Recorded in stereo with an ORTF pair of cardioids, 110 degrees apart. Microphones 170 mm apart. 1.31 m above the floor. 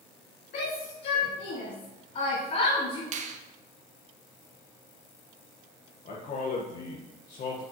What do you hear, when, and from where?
0.5 s a shout: 65° left, 2.5 m; by 3.0 s 35° left, 3 m
3.1 s a finger snap: 45° right, 0.9 m
6.0 s a man speaking: 55° left, 1.5 m